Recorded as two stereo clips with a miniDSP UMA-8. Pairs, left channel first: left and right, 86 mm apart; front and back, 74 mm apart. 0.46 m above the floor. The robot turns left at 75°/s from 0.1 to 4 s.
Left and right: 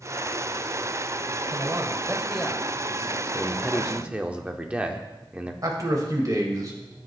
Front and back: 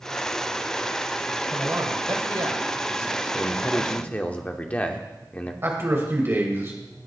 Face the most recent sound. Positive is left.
turn(degrees=-125)